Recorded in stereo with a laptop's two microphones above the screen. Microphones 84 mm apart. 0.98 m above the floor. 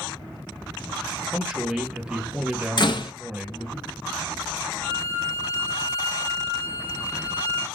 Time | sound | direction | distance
1.3 | a man speaking | 10° right (ahead or behind) | 0.9 m
2.8 | a door slam | 55° left (ahead or behind) | 0.7 m
4.8 | a violin | 55° right (ahead or behind) | 2.5 m